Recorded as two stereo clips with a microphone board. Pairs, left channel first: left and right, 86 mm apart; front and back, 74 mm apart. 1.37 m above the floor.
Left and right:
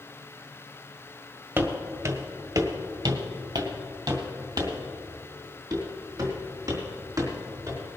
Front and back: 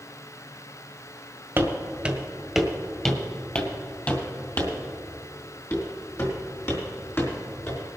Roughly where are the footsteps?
Behind right.